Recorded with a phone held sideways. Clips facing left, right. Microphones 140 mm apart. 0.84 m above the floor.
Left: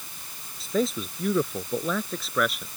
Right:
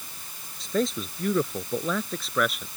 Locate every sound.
0.6 s a man speaking: 5° left (ahead or behind); by 2.7 s centre (ahead or behind)